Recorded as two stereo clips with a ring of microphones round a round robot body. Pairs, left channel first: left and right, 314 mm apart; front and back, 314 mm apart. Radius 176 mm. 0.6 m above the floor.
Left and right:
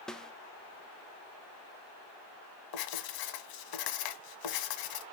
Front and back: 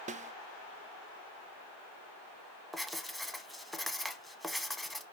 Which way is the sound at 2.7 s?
90° left.